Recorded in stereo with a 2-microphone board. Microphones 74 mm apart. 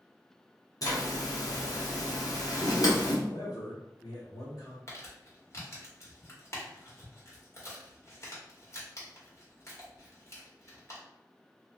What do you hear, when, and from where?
0.8 s a zipper: 50° left (ahead or behind), 1.0 m
3.2 s a man speaking: 60° left (ahead or behind), 1.6 m
4.9 s crumpling: 40° left (ahead or behind), 1.3 m